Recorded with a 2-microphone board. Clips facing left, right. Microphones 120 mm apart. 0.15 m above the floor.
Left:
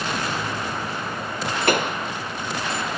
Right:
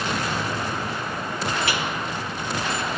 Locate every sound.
1.7 s a pop: 55° left (ahead or behind)